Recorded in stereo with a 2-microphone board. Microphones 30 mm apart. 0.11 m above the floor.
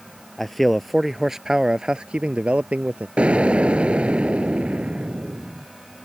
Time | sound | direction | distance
0.4 | a man speaking | 5° left (ahead or behind) | ?
3.2 | an explosion | 45° right (ahead or behind) | ?